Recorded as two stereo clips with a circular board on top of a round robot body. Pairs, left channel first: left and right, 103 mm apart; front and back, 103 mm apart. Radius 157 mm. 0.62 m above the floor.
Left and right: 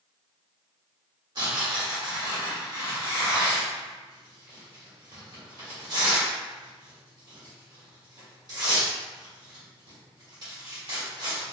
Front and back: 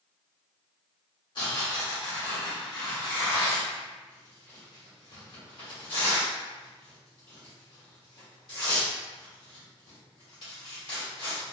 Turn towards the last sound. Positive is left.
turn(degrees=-40)